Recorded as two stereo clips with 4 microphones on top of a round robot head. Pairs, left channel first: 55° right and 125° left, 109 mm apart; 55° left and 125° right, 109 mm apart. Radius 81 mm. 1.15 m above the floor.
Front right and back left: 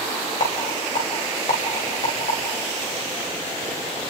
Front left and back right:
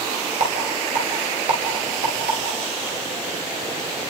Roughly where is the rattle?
Right.